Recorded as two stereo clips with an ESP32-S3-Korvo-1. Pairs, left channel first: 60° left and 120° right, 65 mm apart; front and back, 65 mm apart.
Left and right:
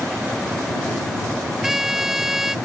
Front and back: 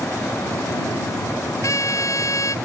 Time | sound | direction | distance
1.6 | a trumpet | 35° right | ?